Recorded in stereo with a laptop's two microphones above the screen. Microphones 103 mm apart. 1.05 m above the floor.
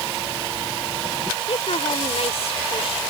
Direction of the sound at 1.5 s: 70° left (ahead or behind).